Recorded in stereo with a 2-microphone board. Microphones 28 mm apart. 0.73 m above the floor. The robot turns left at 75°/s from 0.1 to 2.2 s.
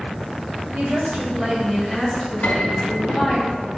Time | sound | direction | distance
0.7 | a woman speaking | 100° right | 3.5 m
2.4 | a piano | 80° left | 2 m